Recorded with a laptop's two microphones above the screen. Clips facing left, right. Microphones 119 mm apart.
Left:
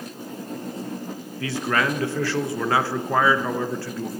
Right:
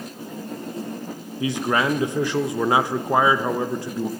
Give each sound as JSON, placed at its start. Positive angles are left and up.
{"t": 1.4, "sound": "a man speaking", "side_deg": -20, "distance_m": 0.5}